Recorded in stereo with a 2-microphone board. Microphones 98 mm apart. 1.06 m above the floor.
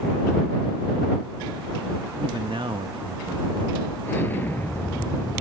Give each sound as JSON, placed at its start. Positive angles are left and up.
{"t": 2.2, "sound": "a man speaking", "side_deg": -65}
{"t": 4.1, "sound": "an explosion", "side_deg": 20}